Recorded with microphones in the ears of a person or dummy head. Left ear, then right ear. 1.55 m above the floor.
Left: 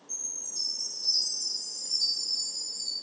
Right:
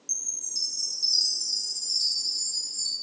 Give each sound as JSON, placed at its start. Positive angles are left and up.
{"t": 0.1, "sound": "a chime", "side_deg": -45, "distance_m": 0.9}